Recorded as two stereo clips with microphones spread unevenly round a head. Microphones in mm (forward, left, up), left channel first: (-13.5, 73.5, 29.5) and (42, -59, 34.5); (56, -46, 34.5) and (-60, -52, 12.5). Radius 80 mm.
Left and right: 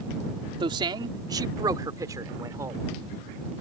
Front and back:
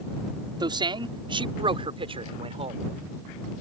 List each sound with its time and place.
0.6 s a man speaking: 125° right; by 2.8 s 140° right